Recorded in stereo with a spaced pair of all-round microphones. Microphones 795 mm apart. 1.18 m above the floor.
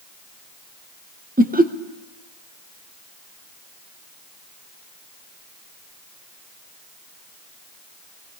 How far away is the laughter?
About 0.6 m.